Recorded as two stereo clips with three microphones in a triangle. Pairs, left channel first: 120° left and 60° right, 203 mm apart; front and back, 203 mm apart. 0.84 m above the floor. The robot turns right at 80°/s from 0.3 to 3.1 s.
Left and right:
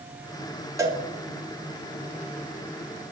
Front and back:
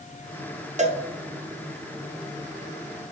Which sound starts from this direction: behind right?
A cowbell, at 0.8 s.